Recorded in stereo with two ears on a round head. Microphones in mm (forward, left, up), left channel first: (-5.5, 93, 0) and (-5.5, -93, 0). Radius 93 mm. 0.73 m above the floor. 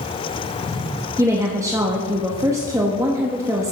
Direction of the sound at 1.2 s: 15° right (ahead or behind).